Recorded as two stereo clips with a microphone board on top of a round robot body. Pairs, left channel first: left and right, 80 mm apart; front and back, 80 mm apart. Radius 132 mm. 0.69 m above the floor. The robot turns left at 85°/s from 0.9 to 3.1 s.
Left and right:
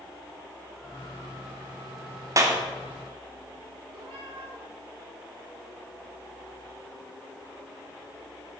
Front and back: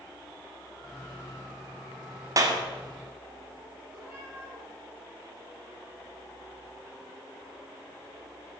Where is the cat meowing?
115° right, 5.5 m.